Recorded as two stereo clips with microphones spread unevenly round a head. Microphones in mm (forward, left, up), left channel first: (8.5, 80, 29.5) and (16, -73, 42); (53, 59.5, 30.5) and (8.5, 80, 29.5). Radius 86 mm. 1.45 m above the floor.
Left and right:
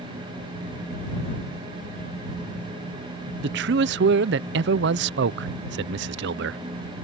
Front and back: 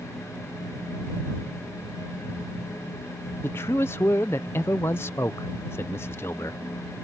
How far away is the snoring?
No snoring in this recording.